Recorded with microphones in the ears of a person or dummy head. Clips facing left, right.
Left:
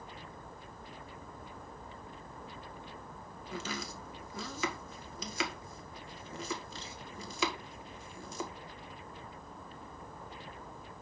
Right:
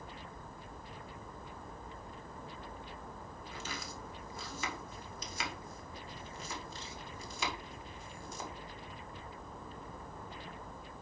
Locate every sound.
3.5 s chopping: 70° left (ahead or behind), 1.6 m